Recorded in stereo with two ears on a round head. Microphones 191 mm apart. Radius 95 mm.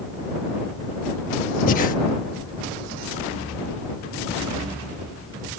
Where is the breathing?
40° left (ahead or behind).